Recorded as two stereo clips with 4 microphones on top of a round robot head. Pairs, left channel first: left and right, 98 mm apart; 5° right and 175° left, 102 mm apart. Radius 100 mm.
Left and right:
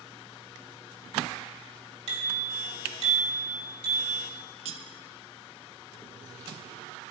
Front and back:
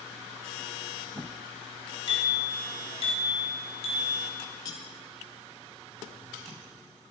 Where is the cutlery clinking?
65° right, 1.1 m.